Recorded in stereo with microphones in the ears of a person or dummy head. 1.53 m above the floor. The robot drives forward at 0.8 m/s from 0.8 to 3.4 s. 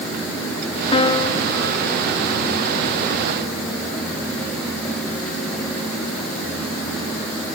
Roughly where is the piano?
Left.